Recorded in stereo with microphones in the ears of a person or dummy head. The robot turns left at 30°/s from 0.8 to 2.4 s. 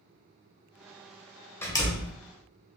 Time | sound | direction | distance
1.6 | a door slam | 10° left (ahead or behind) | 0.8 m